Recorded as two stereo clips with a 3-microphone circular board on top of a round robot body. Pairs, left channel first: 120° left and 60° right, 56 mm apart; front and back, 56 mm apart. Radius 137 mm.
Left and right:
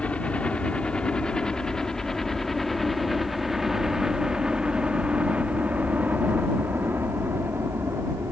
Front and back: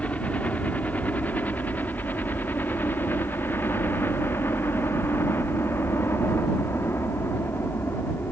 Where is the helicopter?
60° left; by 8.3 s 35° right.